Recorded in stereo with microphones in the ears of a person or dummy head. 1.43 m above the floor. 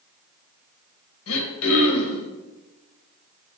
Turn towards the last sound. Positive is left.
turn(degrees=80)